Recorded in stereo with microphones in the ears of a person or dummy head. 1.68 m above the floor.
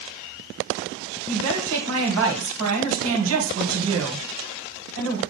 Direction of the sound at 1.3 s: 85° right.